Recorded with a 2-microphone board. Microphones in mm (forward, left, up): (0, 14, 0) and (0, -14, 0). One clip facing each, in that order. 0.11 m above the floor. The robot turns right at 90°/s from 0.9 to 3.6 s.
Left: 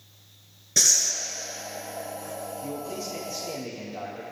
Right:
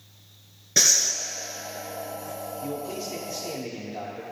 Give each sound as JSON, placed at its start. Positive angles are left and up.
{"t": 0.8, "sound": "breathing", "side_deg": -20, "distance_m": 1.0}
{"t": 2.6, "sound": "a man speaking", "azimuth_deg": -145, "distance_m": 3.0}